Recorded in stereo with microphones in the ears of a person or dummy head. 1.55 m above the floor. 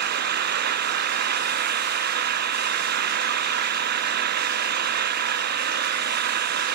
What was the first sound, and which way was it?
An engine running, 60° right (ahead or behind).